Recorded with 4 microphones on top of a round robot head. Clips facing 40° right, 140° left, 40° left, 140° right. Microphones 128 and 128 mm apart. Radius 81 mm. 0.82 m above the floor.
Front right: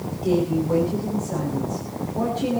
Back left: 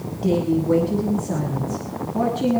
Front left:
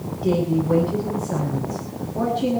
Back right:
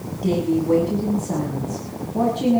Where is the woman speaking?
175° left, 6 m.